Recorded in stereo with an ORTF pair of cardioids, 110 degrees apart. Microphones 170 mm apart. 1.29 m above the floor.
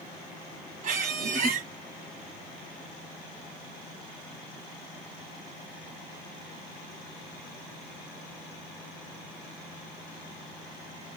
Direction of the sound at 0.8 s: 55° right.